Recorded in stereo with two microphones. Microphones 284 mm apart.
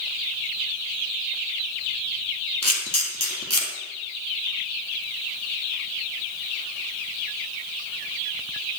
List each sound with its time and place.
2.6 s a camera shutter: 60° left (ahead or behind), 1.4 m